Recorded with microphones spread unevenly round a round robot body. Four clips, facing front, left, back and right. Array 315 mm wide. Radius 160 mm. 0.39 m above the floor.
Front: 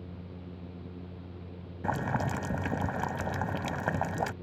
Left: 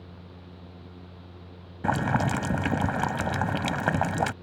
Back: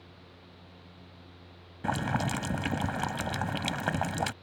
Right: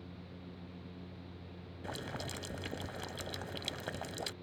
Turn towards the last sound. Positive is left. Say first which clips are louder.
# left 18 dB, back 1 dB
turn(degrees=100)